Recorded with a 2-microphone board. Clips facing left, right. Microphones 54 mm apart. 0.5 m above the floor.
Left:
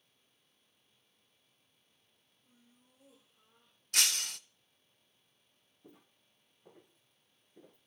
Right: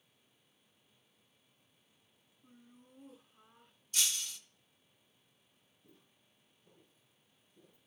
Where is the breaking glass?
60° left (ahead or behind), 0.5 m.